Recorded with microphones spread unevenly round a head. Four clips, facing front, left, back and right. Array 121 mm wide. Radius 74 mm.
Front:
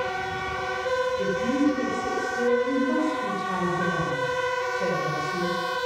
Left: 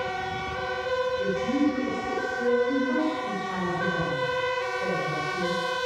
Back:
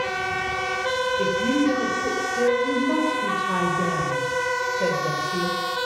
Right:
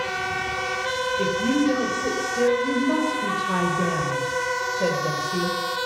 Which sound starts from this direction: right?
A woman speaking, at 1.2 s.